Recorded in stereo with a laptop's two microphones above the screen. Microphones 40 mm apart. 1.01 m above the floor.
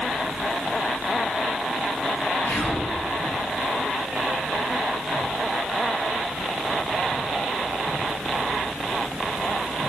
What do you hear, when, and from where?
2.5 s whispering: 65° left (ahead or behind), 1.5 m